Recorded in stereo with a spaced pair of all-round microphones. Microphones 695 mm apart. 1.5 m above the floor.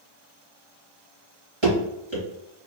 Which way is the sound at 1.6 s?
40° right (ahead or behind).